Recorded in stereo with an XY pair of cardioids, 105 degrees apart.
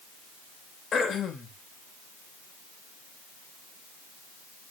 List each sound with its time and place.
0.9 s throat clearing: 50° left, 3 m